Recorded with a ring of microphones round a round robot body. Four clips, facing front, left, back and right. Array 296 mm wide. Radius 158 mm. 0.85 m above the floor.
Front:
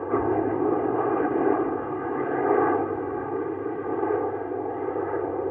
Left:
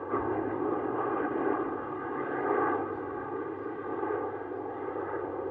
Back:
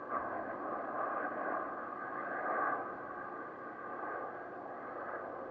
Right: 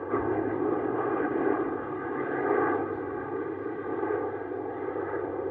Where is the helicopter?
10° right.